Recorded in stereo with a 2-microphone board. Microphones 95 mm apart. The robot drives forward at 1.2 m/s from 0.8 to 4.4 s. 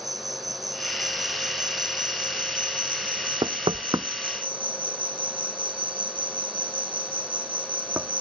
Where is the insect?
45° right (ahead or behind); by 8.2 s 80° right.